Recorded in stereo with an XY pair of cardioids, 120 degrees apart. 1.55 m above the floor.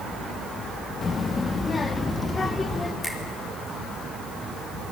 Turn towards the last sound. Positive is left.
turn(degrees=15)